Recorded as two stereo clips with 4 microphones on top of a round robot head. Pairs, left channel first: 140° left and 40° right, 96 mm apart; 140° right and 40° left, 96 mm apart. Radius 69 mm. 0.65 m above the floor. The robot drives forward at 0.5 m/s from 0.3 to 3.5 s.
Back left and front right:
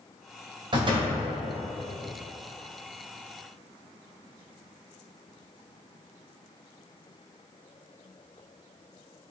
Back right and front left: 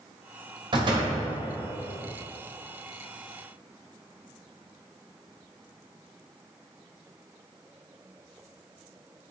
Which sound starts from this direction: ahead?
A door slam, at 0.7 s.